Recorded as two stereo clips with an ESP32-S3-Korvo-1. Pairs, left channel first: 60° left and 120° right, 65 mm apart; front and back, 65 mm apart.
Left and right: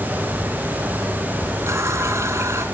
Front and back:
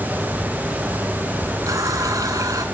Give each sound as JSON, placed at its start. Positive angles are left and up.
{"t": 1.7, "sound": "a running tap", "azimuth_deg": -160, "distance_m": 2.5}